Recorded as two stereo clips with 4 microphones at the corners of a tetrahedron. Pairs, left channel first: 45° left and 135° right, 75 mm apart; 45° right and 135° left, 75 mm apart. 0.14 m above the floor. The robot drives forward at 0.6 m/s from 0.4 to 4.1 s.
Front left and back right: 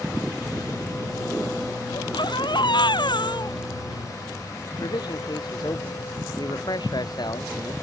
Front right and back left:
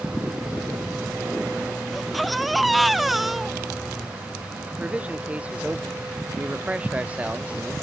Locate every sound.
1.9 s a baby crying: 45° left; by 4.0 s 50° left
4.7 s a man speaking: 65° left